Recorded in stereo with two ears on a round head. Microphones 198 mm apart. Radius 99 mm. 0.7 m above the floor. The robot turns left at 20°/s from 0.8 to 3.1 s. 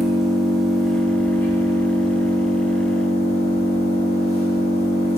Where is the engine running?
Straight behind, 1.6 m; by 5.2 s 135° left, 1.6 m.